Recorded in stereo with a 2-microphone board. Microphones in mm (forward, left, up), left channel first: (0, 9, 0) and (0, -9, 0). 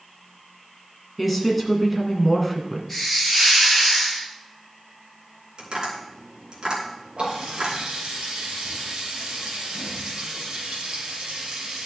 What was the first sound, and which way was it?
A woman speaking, centre (ahead or behind).